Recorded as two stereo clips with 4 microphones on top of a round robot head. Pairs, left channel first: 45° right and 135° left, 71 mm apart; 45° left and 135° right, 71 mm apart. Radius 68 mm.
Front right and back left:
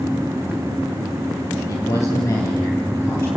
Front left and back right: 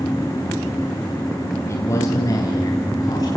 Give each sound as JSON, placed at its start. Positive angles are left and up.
{"t": 1.7, "sound": "a man speaking", "azimuth_deg": -5, "distance_m": 3.5}